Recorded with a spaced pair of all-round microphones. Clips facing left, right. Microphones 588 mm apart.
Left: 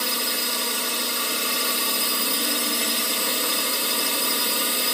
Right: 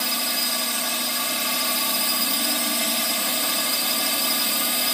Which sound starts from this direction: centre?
A drone, at 0.0 s.